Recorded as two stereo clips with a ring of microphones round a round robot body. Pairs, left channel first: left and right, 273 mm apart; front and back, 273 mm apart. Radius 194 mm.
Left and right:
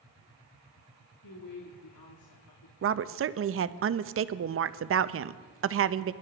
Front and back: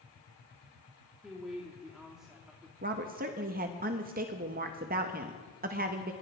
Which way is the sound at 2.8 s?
120° right.